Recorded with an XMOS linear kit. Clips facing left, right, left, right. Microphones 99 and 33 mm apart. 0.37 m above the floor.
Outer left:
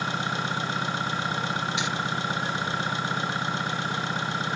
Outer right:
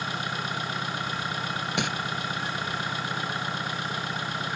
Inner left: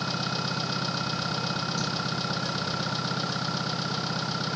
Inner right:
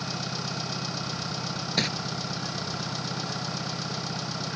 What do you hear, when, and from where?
0.0 s an engine running: 25° left (ahead or behind)
1.8 s crumpling: 55° right (ahead or behind)